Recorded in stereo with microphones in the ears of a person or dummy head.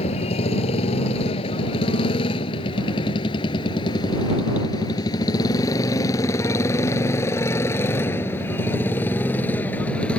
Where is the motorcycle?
35° left (ahead or behind); by 10.2 s 5° left (ahead or behind).